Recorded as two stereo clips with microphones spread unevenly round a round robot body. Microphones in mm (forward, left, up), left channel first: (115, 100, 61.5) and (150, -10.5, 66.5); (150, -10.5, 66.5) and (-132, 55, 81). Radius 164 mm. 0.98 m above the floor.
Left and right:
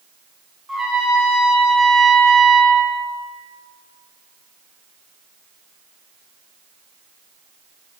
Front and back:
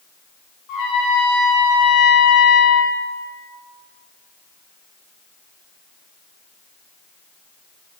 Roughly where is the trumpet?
Ahead.